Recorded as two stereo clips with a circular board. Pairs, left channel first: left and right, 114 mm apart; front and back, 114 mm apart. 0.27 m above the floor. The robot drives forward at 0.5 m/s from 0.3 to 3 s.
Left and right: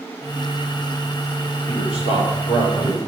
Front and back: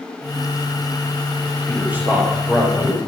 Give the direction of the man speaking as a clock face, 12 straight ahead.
9 o'clock.